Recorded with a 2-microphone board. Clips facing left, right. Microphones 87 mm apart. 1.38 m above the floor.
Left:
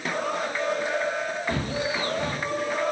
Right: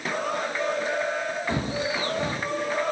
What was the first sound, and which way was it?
Footsteps, 20° right (ahead or behind).